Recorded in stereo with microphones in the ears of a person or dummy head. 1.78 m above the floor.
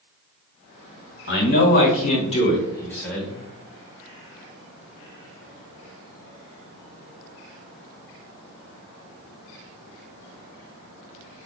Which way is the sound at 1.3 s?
55° left (ahead or behind).